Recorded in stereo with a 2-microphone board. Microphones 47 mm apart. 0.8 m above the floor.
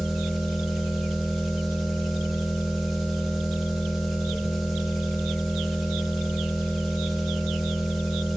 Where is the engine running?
5° right (ahead or behind), 1.8 m.